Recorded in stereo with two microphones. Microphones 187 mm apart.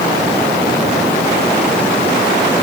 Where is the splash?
No splash in this recording.